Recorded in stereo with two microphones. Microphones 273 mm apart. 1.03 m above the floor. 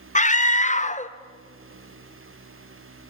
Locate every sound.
0.1 s a scream: 25° left (ahead or behind), 0.7 m